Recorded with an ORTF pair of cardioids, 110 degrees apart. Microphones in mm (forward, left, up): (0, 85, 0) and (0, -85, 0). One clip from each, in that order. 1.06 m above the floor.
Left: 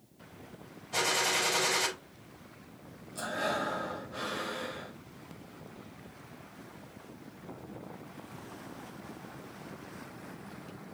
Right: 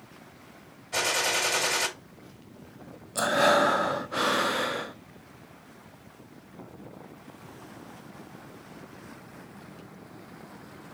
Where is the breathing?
60° right, 0.6 m.